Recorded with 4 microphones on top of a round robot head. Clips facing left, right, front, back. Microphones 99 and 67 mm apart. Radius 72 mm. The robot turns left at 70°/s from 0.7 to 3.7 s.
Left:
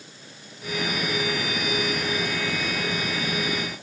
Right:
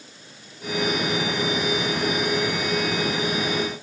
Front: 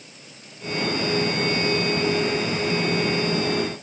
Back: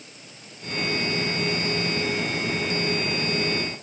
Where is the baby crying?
No baby crying in this recording.